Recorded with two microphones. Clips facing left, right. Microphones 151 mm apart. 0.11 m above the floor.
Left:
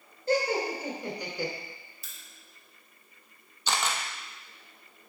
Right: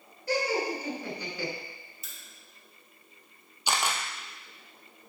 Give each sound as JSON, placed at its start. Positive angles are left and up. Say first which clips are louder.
{"t": 0.3, "sound": "laughter", "louder": "left 2 dB", "side_deg": 25, "distance_m": 1.3}
{"t": 2.0, "sound": "a crack", "louder": "right 2 dB", "side_deg": -20, "distance_m": 2.5}
{"t": 3.7, "sound": "a camera shutter", "louder": "right 1 dB", "side_deg": -10, "distance_m": 0.9}